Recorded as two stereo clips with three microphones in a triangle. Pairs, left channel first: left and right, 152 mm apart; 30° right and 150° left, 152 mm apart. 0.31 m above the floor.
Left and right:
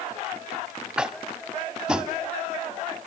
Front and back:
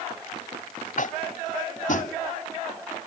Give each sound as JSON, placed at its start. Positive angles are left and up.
{"t": 1.0, "sound": "tapping", "azimuth_deg": -5, "distance_m": 0.8}